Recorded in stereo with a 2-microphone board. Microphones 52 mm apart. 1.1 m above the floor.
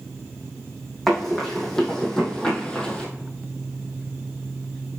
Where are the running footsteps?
5° left (ahead or behind), 3 m; by 3.1 s 20° left (ahead or behind), 2 m.